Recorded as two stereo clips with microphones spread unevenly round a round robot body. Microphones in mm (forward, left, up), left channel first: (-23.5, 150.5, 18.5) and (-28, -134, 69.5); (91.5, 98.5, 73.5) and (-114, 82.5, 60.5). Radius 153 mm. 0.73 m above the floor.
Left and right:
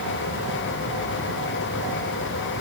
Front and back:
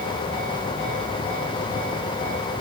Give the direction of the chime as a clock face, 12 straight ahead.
No chime in this recording.